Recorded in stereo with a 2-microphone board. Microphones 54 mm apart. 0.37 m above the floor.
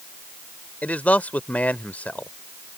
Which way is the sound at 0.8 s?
30° left (ahead or behind).